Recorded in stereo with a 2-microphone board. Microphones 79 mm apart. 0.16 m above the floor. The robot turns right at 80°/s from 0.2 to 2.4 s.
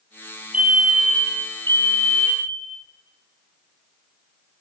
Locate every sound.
0.5 s a fire alarm: 30° right, 2.5 m; by 2.6 s 120° left, 2.5 m